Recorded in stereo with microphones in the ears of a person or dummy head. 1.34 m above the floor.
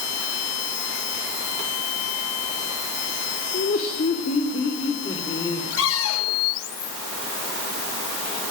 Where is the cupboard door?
80° left, 8 m.